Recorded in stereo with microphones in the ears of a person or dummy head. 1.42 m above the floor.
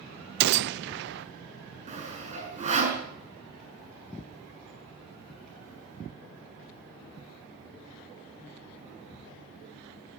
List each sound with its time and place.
0.4 s a gunshot: 65° right (ahead or behind), 0.6 m
1.9 s sawing: 35° right (ahead or behind), 6.5 m